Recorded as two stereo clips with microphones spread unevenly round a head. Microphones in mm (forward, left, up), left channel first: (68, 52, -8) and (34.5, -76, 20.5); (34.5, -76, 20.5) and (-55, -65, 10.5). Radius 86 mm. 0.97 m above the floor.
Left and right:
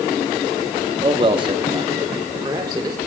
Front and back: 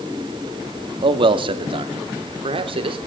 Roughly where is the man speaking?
Behind.